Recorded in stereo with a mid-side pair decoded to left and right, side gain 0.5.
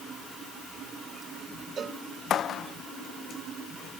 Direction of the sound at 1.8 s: 40° right.